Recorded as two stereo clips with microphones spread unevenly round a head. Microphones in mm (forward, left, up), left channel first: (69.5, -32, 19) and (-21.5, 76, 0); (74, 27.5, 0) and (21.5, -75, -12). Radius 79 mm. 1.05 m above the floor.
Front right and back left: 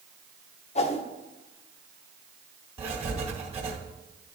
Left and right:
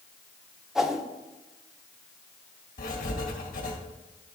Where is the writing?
90° left, 1.6 m.